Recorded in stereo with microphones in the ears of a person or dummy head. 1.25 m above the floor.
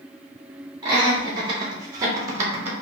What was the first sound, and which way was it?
Laughter, 20° right (ahead or behind).